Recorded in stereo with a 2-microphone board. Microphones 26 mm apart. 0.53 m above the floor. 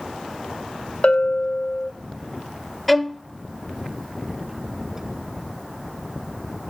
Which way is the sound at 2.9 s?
Centre (ahead or behind).